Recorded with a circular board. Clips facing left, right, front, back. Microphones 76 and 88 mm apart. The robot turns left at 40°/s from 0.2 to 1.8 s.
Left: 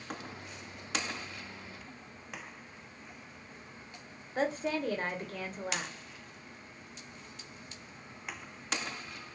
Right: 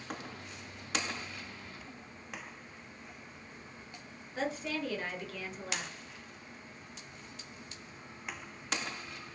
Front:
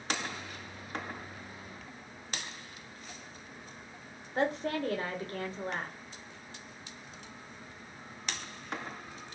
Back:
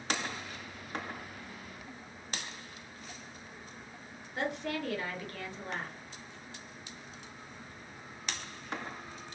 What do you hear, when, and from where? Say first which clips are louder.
4.3 s a woman speaking: left 4 dB, front 4 dB; 45° left, 0.8 m